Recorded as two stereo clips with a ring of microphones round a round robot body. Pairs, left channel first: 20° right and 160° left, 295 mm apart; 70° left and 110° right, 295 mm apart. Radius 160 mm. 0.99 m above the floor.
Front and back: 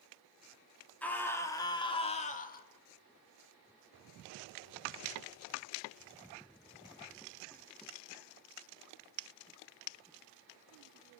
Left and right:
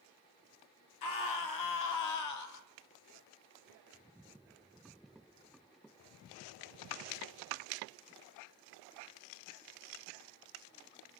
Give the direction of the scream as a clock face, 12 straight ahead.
10 o'clock.